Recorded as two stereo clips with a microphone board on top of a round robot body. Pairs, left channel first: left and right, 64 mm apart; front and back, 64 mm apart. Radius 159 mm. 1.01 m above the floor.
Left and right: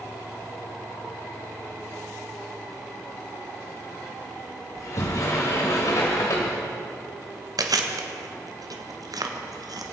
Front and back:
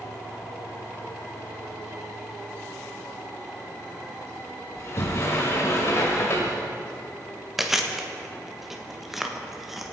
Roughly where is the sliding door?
Ahead left.